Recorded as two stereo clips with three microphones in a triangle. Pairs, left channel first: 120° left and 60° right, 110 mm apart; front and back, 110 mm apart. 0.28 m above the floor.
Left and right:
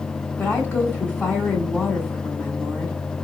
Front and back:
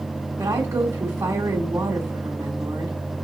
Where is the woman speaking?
165° left, 1.0 m.